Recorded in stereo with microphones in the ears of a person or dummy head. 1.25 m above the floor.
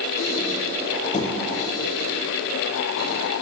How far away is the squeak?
About 2.5 m.